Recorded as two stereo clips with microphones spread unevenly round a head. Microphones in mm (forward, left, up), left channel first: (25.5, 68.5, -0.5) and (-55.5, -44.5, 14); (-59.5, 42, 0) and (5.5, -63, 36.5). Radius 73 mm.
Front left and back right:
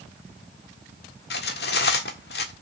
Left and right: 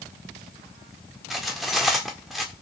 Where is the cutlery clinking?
30° left, 1.4 m.